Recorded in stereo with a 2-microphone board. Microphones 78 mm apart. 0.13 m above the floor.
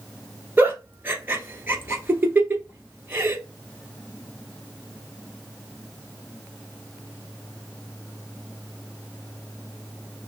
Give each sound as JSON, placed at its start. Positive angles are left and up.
{"t": 0.6, "sound": "a giggle", "side_deg": -25, "distance_m": 1.2}